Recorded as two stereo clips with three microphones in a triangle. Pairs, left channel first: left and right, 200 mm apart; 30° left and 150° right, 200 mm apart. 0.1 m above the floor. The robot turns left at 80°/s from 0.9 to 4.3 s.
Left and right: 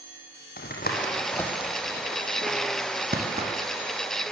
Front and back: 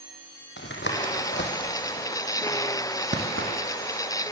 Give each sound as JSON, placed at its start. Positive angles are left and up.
{"t": 0.6, "sound": "tapping", "azimuth_deg": 50, "distance_m": 4.5}